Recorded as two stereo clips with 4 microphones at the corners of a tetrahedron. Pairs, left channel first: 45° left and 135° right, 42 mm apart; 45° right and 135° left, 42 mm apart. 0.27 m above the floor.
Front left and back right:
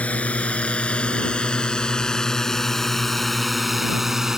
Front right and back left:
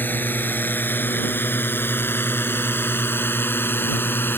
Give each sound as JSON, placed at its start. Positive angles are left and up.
{"t": 0.0, "sound": "a drone", "azimuth_deg": -10}